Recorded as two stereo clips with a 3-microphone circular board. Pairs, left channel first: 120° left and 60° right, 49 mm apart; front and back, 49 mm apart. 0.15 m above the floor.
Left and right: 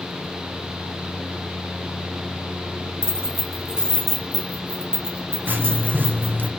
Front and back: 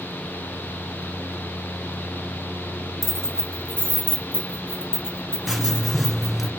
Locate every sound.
3.0 s keys jangling: 80° left, 0.8 m; by 6.5 s 35° right, 2 m
5.5 s writing: 90° right, 0.6 m